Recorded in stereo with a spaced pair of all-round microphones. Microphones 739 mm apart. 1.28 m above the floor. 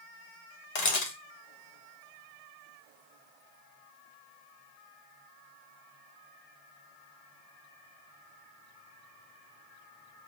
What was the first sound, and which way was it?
A camera shutter, 60° left (ahead or behind).